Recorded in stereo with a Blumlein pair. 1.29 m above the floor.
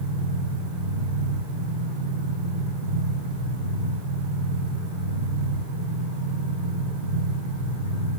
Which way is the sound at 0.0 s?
55° right.